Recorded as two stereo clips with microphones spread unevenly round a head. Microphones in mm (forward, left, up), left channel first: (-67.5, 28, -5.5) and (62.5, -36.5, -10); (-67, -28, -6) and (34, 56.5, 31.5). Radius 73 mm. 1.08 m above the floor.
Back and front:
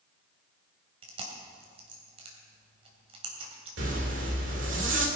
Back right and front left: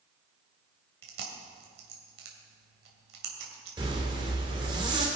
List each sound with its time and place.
1.0 s chewing: 30° left, 2.5 m
3.8 s a zipper: 25° right, 2.5 m